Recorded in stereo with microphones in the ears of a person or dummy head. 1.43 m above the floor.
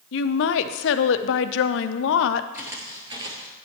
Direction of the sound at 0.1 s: 70° left (ahead or behind).